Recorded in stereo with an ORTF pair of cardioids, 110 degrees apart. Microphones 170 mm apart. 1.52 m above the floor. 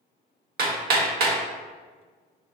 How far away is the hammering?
About 1.0 m.